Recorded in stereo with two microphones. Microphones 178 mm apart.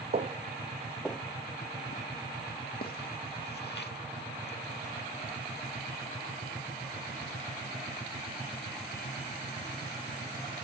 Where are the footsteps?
45° right (ahead or behind), 0.6 m; by 4.9 s 75° left (ahead or behind), 2 m.